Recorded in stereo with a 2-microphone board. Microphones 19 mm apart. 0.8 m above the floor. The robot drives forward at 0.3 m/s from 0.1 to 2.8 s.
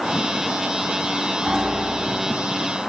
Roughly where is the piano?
Right.